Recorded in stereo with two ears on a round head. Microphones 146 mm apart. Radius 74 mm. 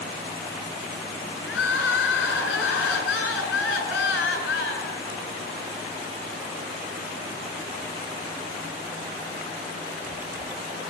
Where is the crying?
80° left, 6.5 m.